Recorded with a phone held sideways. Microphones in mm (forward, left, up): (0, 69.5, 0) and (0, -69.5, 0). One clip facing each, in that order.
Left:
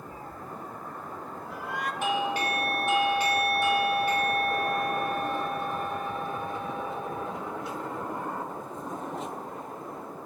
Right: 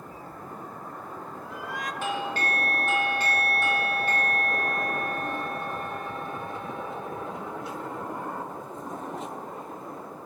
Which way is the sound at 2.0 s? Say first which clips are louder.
Left 3 dB; 15° left (ahead or behind).